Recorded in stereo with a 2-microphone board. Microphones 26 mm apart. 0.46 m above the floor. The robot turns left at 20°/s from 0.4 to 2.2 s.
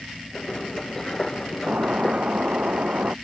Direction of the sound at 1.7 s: 60° right (ahead or behind).